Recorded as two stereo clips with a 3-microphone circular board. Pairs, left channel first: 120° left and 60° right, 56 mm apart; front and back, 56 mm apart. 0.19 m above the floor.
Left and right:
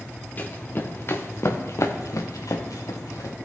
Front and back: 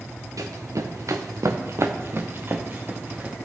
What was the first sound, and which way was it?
Running footsteps, straight behind.